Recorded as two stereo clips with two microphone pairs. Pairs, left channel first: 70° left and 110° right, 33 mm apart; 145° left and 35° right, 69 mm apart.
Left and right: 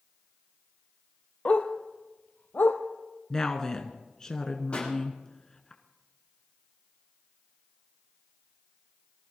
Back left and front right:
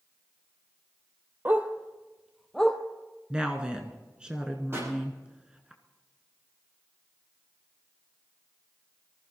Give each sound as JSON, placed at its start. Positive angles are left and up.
{"t": 1.4, "sound": "a dog barking", "azimuth_deg": 25, "distance_m": 0.9}
{"t": 3.3, "sound": "a woman speaking", "azimuth_deg": 25, "distance_m": 1.1}
{"t": 4.7, "sound": "a pop", "azimuth_deg": 15, "distance_m": 7.0}